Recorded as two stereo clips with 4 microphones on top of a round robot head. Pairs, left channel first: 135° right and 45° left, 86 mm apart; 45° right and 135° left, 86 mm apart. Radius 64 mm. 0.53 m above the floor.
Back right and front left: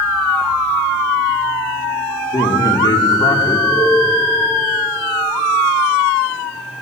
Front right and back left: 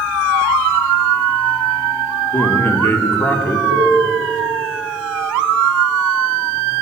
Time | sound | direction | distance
2.3 | a man speaking | 110° right | 1.8 m
3.7 | a cowbell | 45° left | 5.5 m